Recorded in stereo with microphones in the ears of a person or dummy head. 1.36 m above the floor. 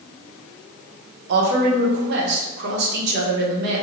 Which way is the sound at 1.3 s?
70° right (ahead or behind).